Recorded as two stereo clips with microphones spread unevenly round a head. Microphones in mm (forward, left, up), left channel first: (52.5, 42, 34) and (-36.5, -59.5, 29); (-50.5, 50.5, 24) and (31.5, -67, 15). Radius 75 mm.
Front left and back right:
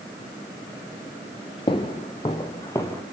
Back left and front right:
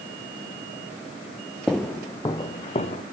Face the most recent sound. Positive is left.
turn(degrees=115)